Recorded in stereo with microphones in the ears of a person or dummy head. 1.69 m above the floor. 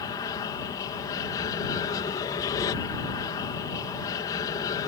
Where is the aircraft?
20° left (ahead or behind).